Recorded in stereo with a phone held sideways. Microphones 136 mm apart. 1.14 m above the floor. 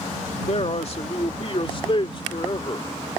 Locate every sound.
0.5 s a man speaking: 50° left (ahead or behind); by 2.9 s 40° left (ahead or behind)